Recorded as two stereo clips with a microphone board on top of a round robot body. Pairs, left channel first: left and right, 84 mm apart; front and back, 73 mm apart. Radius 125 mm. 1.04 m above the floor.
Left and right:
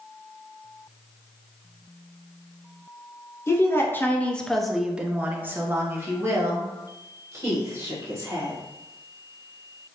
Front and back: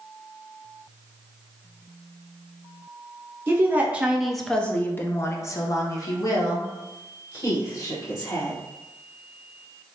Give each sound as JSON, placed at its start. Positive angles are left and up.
{"t": 3.5, "sound": "a woman speaking", "azimuth_deg": 130, "distance_m": 0.8}